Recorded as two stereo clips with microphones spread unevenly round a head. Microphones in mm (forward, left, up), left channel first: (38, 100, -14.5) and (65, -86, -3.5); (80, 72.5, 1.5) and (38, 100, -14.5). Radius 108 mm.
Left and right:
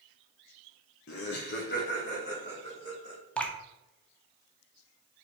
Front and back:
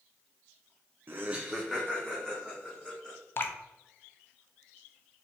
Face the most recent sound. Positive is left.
turn(degrees=20)